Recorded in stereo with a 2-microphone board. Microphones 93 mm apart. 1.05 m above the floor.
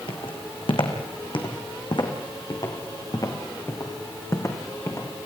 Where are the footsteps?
65° left (ahead or behind), 4 m; by 5.1 s 30° left (ahead or behind), 5 m.